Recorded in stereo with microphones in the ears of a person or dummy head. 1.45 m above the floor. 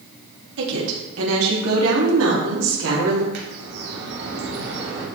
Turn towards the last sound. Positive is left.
turn(degrees=-60)  # may be behind; listen again after turning